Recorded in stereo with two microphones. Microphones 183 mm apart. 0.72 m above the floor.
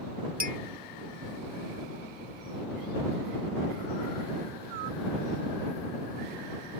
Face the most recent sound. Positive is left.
turn(degrees=-50)  # may be behind; listen again after turning